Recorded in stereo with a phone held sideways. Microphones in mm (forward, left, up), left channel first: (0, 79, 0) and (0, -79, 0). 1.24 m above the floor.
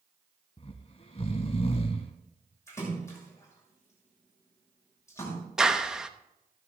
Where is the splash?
20° left (ahead or behind), 6.5 m.